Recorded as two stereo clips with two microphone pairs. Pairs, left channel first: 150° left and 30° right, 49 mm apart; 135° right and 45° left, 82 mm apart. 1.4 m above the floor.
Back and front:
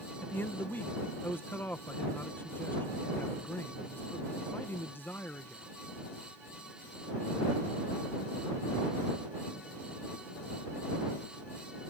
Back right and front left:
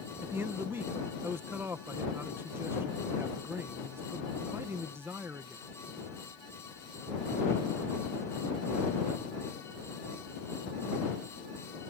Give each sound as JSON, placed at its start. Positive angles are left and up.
{"t": 0.2, "sound": "a man speaking", "azimuth_deg": 105}